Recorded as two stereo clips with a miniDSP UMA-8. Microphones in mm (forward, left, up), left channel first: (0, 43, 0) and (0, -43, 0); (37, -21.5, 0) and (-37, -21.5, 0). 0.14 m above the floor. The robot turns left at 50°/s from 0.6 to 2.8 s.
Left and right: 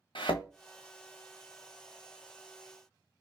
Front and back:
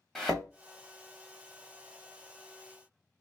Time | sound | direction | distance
0.1 | a thud | 90° left | 0.9 m